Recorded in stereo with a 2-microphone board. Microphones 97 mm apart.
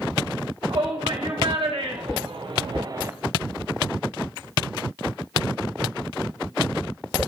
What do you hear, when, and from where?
0.7 s a shout: 70° right (ahead or behind), 4.5 m; by 3.1 s 25° right (ahead or behind), 0.7 m